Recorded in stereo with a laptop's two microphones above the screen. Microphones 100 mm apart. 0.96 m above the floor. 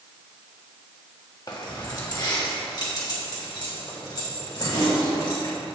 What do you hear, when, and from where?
1.5 s keys jangling: 40° left (ahead or behind), 1.3 m; by 5.5 s 45° left (ahead or behind), 3.5 m